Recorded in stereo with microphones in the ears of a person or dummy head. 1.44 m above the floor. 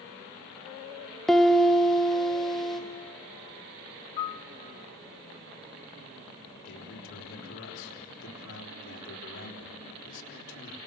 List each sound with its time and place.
1.3 s a piano: centre (ahead or behind), 1.1 m
4.2 s a piano: 20° left (ahead or behind), 0.6 m
6.7 s a man speaking: 65° left (ahead or behind), 4 m